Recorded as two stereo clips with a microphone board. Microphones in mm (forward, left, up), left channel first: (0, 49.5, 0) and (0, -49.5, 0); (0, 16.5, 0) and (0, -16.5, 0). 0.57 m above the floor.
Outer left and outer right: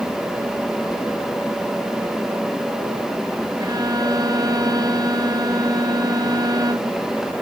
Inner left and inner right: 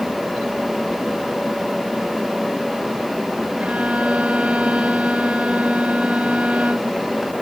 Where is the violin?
45° right (ahead or behind).